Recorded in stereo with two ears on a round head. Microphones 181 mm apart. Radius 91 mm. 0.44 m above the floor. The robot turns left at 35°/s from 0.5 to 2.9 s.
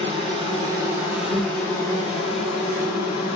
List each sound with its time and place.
0.0 s an insect: 150° right, 1.8 m; by 3.4 s 125° left, 1.8 m